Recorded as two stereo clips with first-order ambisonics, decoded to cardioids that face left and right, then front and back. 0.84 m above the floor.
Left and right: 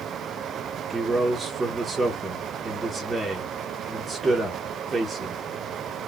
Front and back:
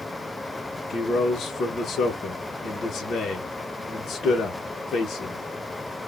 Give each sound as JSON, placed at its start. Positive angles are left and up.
{"t": 0.9, "sound": "a man speaking", "azimuth_deg": -20, "distance_m": 0.6}